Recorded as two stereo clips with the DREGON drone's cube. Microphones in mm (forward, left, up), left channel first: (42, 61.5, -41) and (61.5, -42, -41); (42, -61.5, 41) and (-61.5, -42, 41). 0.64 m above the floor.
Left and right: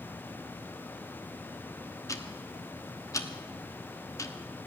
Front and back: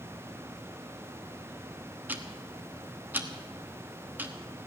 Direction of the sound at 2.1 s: 110° left.